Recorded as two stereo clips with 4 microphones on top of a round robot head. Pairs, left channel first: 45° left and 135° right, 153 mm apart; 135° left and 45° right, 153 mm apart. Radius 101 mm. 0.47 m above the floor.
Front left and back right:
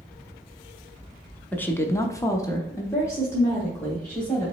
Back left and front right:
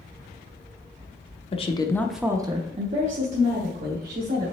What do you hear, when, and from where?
1.5 s a woman speaking: 120° left, 0.9 m; by 4.5 s 35° right, 2.5 m